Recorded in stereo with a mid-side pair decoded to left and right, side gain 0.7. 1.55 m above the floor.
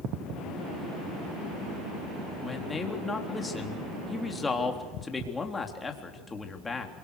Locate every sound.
2.4 s a man speaking: 15° left, 3.5 m